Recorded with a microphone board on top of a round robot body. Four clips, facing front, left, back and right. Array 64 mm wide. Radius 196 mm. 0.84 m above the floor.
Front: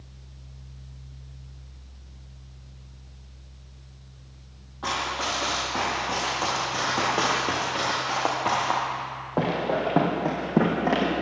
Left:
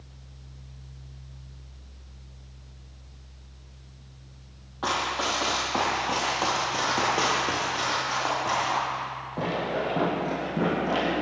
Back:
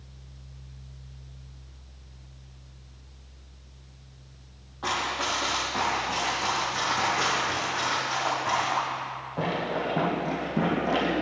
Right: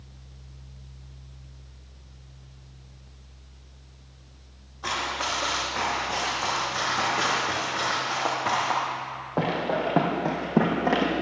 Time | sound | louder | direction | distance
4.8 | running footsteps | left 2 dB, even | 90° left | 1.7 m